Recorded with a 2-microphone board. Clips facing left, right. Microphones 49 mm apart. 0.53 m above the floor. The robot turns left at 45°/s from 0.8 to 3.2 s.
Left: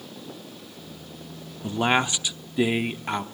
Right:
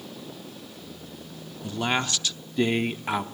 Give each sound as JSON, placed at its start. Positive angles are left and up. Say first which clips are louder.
{"t": 1.6, "sound": "a man speaking", "louder": "left 4 dB", "side_deg": 25, "distance_m": 0.7}